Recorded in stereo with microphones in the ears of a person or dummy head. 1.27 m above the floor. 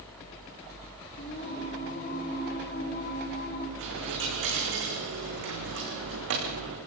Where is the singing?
50° left (ahead or behind), 8.5 m.